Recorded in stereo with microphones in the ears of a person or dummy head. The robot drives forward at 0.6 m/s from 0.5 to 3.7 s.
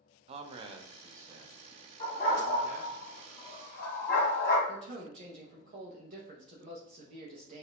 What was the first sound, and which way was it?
A man speaking, 35° right (ahead or behind).